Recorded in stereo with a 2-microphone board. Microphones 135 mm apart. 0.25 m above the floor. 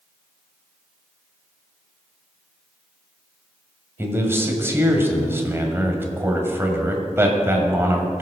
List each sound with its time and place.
4.0 s a man speaking: 20° right (ahead or behind), 1.6 m